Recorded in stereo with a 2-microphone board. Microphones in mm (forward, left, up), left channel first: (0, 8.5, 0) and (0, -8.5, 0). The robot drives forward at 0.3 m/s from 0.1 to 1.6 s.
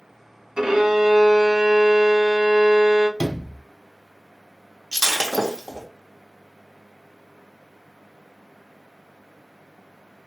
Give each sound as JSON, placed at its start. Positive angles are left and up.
{"t": 0.6, "sound": "a violin", "side_deg": -50, "distance_m": 0.7}
{"t": 3.2, "sound": "a sliding door", "side_deg": 65, "distance_m": 1.5}
{"t": 4.9, "sound": "breaking glass", "side_deg": -20, "distance_m": 0.8}